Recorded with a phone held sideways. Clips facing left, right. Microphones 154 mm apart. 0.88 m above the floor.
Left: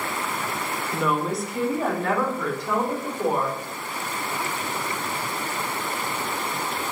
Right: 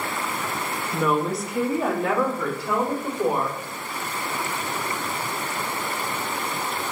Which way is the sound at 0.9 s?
5° left (ahead or behind).